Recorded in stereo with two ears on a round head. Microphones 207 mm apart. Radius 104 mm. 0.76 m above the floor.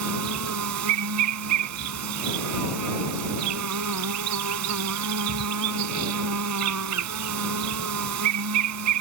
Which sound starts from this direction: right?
An insect, at 0.0 s.